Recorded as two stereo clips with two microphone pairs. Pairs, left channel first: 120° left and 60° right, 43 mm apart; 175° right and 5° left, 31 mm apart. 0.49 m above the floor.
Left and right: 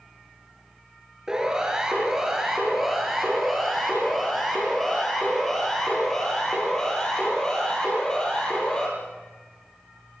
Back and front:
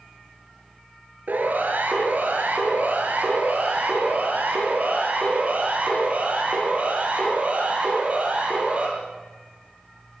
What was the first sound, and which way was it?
A siren, 15° left.